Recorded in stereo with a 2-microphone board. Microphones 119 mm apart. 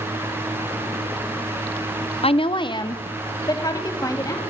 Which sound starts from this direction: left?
A woman speaking, at 2.2 s.